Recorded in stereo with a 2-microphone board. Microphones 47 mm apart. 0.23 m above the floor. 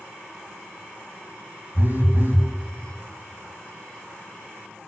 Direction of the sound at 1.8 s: 45° right (ahead or behind).